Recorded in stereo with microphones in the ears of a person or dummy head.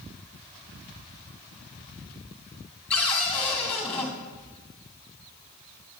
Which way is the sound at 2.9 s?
5° left (ahead or behind).